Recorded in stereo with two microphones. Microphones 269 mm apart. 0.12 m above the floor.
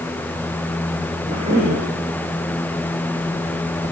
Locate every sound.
1.3 s a cough: 25° right (ahead or behind), 6.5 m